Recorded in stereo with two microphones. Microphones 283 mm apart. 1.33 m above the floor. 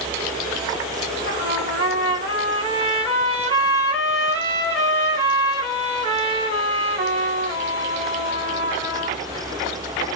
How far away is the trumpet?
About 2.5 m.